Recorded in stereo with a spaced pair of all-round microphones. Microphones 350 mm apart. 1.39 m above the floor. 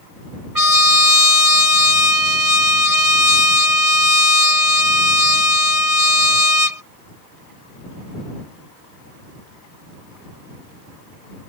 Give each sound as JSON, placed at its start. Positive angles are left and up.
{"t": 0.6, "sound": "a trumpet", "side_deg": -70}